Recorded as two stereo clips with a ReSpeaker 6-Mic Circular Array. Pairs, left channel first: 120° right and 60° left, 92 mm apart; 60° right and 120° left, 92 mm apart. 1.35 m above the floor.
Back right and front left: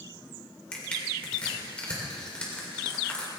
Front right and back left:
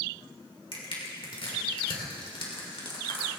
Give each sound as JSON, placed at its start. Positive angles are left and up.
{"t": 0.7, "sound": "crushing", "azimuth_deg": -45, "distance_m": 3.5}